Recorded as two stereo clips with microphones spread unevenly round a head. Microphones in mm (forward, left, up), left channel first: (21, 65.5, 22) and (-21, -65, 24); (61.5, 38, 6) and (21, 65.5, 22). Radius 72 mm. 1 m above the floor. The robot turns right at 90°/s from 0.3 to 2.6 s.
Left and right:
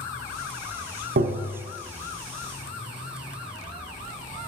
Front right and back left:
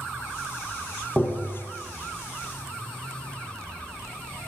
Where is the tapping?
125° right, 0.6 m; by 1.6 s 90° right, 0.6 m.